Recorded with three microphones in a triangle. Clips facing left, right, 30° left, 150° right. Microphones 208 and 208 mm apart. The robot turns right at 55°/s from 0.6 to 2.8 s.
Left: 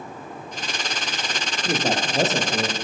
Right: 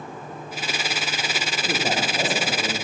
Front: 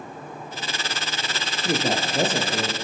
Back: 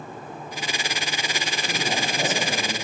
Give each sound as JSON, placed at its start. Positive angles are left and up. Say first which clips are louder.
{"t": 1.6, "sound": "a man speaking", "louder": "left 3 dB, front 6 dB", "azimuth_deg": 15, "distance_m": 4.0}